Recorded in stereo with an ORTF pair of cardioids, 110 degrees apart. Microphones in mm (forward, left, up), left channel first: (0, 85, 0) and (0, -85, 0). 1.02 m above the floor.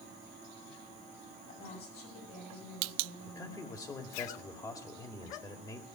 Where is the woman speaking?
65° left, 7 m.